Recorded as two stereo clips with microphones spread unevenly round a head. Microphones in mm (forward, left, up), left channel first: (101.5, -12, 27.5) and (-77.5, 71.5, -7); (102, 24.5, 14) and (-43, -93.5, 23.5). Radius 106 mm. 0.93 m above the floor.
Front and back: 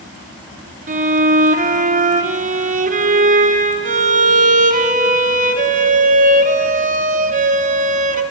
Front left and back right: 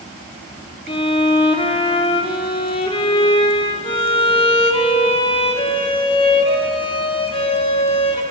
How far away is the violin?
About 1.5 m.